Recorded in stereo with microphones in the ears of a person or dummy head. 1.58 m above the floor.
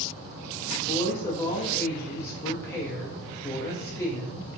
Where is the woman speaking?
15° left (ahead or behind), 0.7 m.